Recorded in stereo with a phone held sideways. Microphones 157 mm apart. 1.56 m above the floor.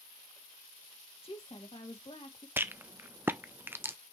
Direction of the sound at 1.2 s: 40° left (ahead or behind).